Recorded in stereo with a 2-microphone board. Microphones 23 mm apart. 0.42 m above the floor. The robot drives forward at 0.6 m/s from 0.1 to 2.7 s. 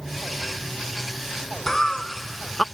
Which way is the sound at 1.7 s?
20° left (ahead or behind).